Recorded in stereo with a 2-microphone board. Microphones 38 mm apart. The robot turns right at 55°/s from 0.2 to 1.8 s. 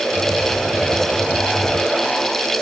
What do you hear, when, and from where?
Only background noise.